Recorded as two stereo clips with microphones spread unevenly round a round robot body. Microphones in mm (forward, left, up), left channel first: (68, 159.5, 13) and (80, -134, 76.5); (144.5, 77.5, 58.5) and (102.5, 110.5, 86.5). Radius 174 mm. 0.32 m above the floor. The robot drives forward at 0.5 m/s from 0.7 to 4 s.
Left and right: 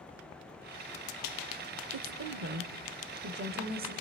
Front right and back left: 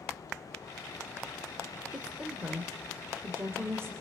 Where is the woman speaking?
110° right, 1.2 m; by 3.9 s 155° right, 1.7 m.